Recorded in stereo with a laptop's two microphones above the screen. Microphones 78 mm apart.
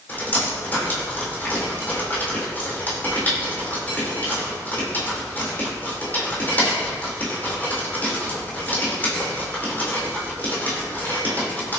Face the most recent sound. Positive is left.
turn(degrees=30)  # may be behind; listen again after turning